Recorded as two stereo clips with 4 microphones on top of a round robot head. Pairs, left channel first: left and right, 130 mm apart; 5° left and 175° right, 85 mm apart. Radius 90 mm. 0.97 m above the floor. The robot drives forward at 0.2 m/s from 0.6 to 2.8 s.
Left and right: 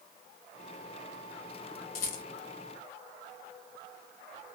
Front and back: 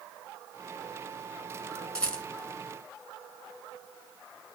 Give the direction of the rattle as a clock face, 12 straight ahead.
9 o'clock.